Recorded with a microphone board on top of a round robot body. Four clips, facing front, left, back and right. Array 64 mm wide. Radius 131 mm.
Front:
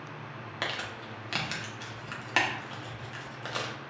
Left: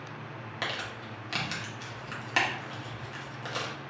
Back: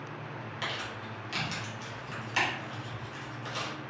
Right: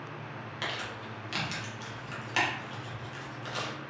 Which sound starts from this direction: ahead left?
Crumpling, at 0.6 s.